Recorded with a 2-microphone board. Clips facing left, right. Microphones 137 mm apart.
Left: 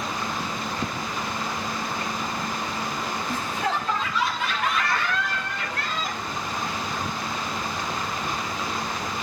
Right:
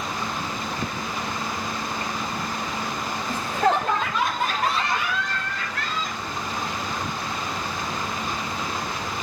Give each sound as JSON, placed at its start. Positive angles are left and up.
{"t": 3.3, "sound": "laughter", "side_deg": -65, "distance_m": 2.5}